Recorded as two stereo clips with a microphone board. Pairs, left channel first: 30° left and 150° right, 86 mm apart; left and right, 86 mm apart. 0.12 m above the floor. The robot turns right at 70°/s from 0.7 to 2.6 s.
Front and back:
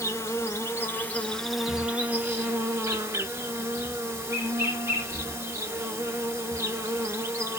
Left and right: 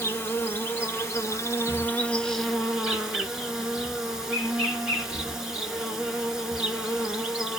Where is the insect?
55° left, 1.0 m; by 7.6 s 170° right, 1.0 m.